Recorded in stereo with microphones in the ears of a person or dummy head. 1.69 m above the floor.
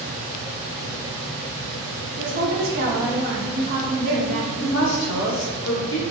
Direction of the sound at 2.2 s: 50° right (ahead or behind).